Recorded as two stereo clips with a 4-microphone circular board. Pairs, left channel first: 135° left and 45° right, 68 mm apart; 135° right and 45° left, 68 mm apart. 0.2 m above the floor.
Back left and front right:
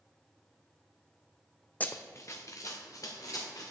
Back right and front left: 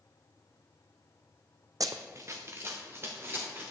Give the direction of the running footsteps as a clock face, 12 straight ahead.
10 o'clock.